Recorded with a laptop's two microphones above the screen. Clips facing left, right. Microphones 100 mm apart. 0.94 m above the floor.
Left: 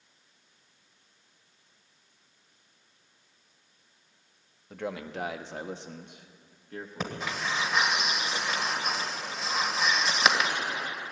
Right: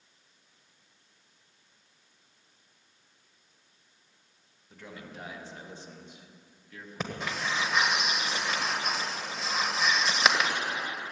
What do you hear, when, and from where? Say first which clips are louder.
4.7 s a man speaking: left 10 dB; 70° left (ahead or behind), 1.1 m; by 7.3 s 30° left (ahead or behind), 1.3 m
7.0 s breathing: even; centre (ahead or behind), 1.4 m